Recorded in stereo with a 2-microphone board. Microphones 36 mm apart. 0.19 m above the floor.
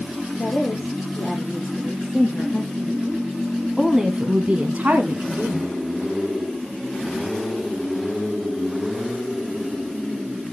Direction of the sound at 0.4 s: 45° left (ahead or behind).